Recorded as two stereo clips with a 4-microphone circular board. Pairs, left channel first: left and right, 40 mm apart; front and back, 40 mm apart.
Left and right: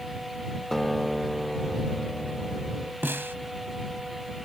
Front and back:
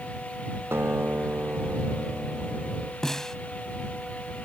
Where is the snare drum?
80° right.